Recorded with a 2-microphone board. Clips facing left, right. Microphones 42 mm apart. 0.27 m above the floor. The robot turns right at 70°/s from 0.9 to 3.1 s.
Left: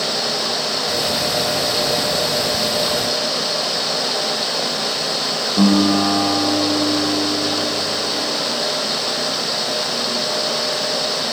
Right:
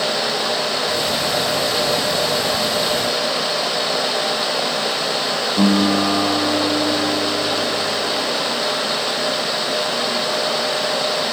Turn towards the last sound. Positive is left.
turn(degrees=45)  # may be behind; listen again after turning